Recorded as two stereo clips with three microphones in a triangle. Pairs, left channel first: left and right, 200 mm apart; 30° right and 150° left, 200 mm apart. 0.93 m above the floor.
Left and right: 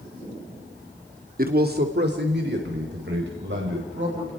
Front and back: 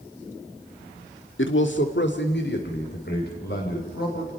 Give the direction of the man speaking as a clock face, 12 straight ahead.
2 o'clock.